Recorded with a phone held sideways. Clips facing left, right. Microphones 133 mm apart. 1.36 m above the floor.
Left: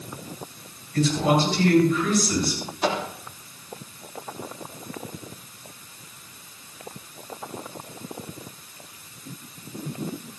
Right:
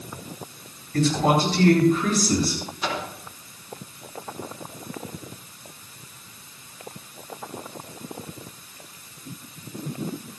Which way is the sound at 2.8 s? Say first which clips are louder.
Left 5 dB; 65° left (ahead or behind).